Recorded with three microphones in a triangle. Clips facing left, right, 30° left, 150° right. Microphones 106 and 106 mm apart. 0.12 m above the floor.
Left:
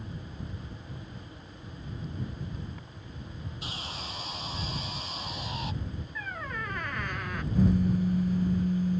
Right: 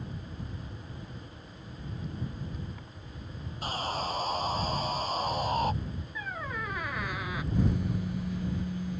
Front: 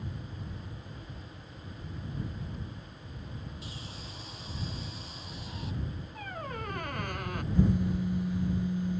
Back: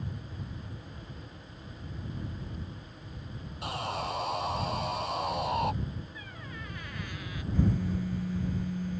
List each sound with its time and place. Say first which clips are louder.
3.6 s sawing: right 11 dB, back 12 dB; 135° right
6.2 s a squeak: right 1 dB, front 6 dB; 5° right
7.5 s a phone buzzing: left 6 dB, front 2 dB; 95° left